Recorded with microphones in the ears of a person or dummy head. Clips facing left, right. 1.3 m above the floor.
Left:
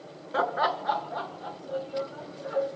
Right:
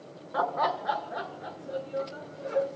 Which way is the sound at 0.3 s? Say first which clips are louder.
Left 1 dB; 35° left (ahead or behind).